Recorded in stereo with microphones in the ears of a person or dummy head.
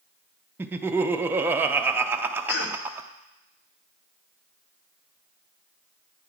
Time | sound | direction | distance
0.6 | laughter | 15° right (ahead or behind) | 0.6 m
2.5 | a cough | 70° left (ahead or behind) | 1.1 m